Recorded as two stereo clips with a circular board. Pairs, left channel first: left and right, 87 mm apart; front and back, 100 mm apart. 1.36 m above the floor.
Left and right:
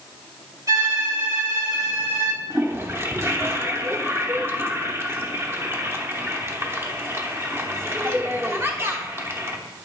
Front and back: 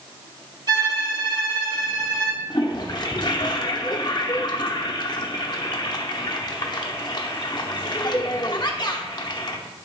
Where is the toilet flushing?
35° right, 0.9 m.